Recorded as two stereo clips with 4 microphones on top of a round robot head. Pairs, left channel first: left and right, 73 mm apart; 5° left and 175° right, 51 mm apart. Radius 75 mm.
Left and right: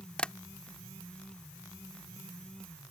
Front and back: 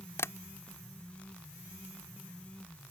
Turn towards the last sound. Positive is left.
turn(degrees=15)